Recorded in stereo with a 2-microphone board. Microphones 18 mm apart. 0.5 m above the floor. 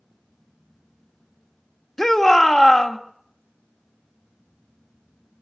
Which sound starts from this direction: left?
A shout, at 2.0 s.